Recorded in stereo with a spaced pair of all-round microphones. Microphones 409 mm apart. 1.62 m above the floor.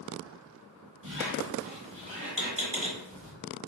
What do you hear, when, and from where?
1.0 s a squeak: 15° right (ahead or behind), 1.6 m